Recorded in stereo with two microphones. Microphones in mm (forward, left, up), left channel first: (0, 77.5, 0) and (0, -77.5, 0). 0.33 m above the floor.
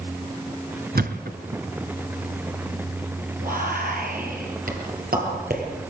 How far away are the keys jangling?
No keys jangling in this recording.